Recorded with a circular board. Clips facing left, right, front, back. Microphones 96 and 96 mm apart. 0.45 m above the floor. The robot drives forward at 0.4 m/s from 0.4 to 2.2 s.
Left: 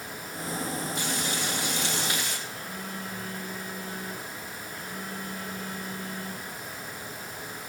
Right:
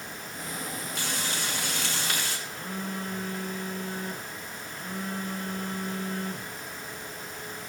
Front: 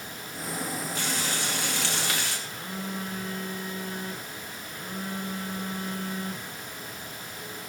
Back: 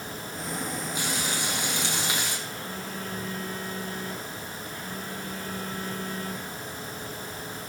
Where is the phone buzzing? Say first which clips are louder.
Right 2 dB, even; 70° right, 4.5 m.